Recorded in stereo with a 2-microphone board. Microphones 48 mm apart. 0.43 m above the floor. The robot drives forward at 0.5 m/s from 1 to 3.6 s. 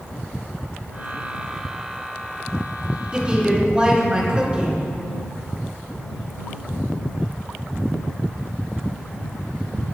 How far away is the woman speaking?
About 5.5 m.